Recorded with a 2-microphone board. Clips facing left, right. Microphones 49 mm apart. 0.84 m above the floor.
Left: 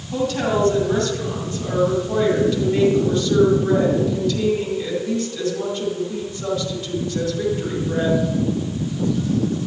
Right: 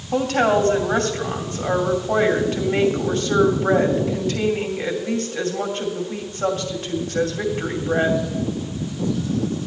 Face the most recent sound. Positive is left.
turn(degrees=-45)  # may be behind; listen again after turning